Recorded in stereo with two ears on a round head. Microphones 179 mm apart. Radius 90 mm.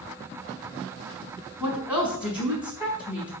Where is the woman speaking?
5° right (ahead or behind), 4.5 m.